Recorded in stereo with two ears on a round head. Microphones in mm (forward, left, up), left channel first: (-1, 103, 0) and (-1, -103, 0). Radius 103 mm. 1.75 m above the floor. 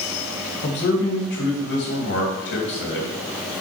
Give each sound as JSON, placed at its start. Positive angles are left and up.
{"t": 0.6, "sound": "a man speaking", "side_deg": 50, "distance_m": 2.5}